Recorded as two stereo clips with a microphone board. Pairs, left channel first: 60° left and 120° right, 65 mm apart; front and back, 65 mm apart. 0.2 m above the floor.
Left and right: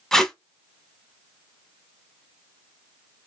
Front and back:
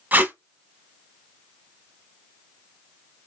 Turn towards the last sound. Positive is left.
turn(degrees=140)